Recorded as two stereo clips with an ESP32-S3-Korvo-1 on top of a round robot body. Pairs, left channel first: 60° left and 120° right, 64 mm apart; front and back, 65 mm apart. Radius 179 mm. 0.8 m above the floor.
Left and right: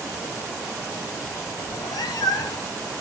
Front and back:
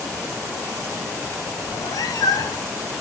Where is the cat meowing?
35° left, 1.1 m.